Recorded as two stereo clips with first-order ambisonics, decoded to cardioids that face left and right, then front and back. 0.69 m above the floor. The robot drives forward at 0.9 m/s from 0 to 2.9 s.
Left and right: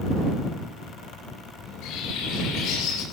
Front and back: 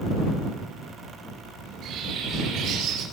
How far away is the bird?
About 6 m.